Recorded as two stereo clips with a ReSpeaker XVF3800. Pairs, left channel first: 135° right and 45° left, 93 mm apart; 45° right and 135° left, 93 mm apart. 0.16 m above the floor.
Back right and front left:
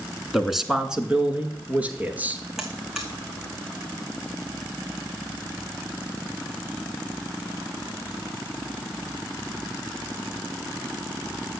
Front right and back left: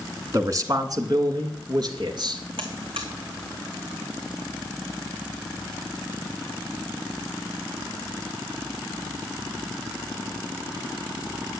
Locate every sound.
0.3 s a man speaking: 135° left, 1.8 m; by 2.4 s 115° left, 3 m
2.6 s a buzzer: 130° left, 2.5 m